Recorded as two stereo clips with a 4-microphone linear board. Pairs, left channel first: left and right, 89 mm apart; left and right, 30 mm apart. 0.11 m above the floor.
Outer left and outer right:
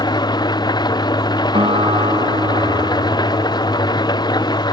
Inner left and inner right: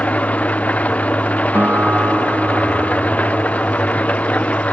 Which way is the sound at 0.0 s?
50° left (ahead or behind).